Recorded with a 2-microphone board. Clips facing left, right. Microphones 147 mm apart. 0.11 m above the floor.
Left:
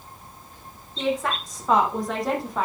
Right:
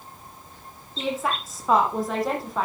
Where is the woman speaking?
5° right (ahead or behind), 6 m; by 2.7 s centre (ahead or behind), 4.5 m.